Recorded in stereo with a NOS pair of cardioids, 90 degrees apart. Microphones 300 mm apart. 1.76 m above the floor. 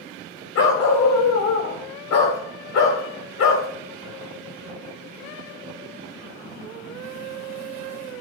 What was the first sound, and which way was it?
A dog barking, 60° left.